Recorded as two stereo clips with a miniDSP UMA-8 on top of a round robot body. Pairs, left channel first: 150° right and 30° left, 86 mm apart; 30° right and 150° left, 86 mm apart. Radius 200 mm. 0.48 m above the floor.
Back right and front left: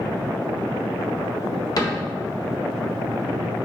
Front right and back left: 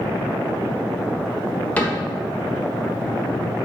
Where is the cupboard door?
105° right, 1.4 m.